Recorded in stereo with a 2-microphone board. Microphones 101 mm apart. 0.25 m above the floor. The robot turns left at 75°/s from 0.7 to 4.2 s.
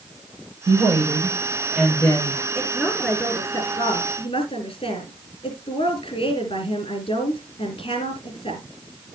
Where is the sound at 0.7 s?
95° right, 7.5 m; by 2.5 s 135° left, 7.5 m.